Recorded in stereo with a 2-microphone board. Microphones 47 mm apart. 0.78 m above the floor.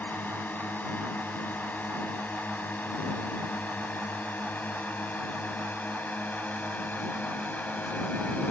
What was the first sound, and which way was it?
A drone, 45° left (ahead or behind).